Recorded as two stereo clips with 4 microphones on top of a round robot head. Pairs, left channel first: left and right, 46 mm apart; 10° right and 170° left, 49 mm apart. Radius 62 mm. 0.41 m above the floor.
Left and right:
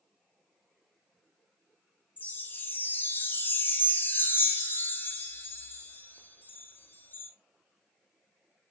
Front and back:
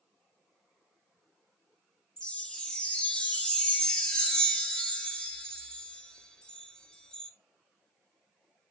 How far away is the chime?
About 0.9 m.